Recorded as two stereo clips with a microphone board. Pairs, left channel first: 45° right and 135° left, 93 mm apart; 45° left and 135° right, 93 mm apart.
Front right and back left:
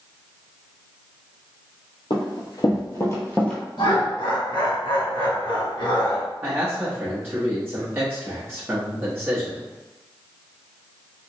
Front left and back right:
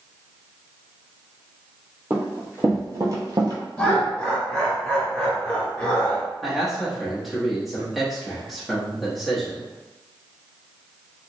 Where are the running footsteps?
65° right, 1.5 m; by 3.6 s 120° right, 1.1 m.